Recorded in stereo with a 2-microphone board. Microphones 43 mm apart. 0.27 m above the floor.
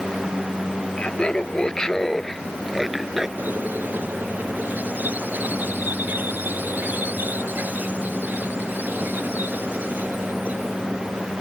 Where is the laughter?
25° left (ahead or behind); by 3.3 s 10° right (ahead or behind).